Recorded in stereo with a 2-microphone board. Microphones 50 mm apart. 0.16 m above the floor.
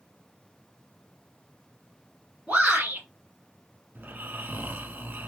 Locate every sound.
2.5 s a shout: 30° right (ahead or behind), 1.2 m
4.0 s snoring: 45° right (ahead or behind), 0.6 m